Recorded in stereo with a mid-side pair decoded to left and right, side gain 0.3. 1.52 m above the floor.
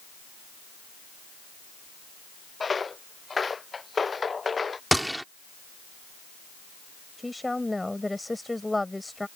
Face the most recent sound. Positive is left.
turn(degrees=15)